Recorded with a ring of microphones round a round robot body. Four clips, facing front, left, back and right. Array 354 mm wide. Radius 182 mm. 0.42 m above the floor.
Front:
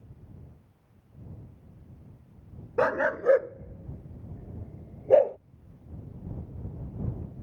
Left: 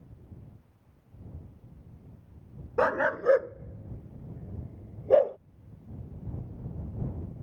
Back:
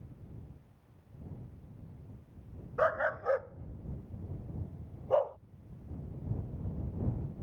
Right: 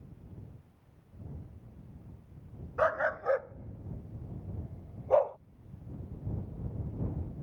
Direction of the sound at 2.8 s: 45° left.